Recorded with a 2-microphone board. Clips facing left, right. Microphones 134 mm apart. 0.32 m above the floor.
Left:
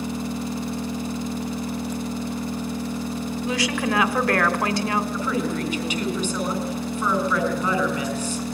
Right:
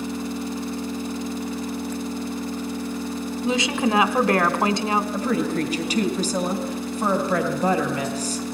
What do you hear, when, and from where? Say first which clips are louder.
0.0 s an engine running: even; 10° left (ahead or behind), 1.2 m
3.4 s a woman speaking: right 3 dB; 20° right (ahead or behind), 1.3 m
5.1 s a woman speaking: right 2 dB; 35° right (ahead or behind), 4 m